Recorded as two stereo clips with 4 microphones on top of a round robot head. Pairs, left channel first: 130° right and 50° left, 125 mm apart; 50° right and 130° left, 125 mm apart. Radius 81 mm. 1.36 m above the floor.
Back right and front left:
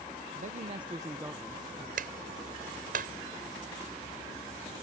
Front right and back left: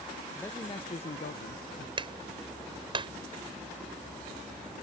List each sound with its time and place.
0.3 s a man speaking: 30° left; by 1.9 s 45° right
2.0 s a clap: 75° left